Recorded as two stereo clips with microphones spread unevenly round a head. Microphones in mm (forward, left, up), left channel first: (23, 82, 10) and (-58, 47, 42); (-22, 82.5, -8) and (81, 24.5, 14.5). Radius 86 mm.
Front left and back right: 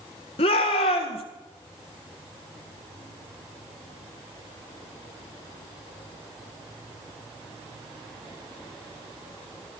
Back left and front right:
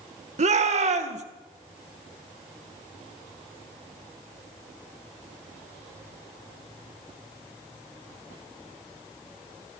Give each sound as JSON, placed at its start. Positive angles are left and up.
{"t": 0.4, "sound": "a shout", "azimuth_deg": -10, "distance_m": 1.6}